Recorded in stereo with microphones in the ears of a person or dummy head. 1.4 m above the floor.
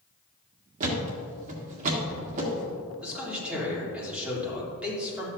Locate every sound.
0.8 s a thud: 40° right (ahead or behind), 1.5 m
3.0 s a man speaking: 5° right (ahead or behind), 3 m